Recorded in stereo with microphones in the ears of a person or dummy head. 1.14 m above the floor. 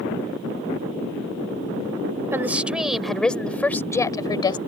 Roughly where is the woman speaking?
Centre.